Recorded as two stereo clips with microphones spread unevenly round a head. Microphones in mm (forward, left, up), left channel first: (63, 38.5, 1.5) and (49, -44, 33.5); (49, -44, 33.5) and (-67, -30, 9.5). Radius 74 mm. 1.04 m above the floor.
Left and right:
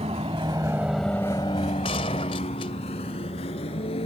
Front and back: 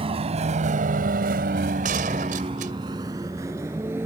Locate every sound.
0.0 s a vehicle: 145° right; by 4.1 s 95° left
1.8 s a gunshot: 135° left